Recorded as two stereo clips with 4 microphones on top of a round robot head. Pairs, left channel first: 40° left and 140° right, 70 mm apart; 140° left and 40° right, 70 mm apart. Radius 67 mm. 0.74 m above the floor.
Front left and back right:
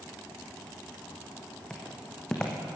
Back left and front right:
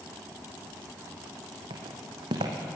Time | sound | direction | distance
1.7 | footsteps | 40° right | 3 m